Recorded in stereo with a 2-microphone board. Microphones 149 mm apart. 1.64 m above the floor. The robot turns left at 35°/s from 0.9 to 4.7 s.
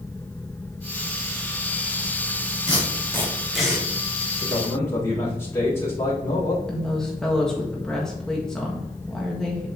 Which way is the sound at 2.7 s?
30° left (ahead or behind).